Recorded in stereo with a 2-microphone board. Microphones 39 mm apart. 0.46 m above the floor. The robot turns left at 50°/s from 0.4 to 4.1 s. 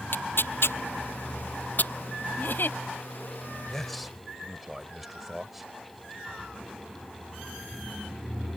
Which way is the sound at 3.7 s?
15° left (ahead or behind).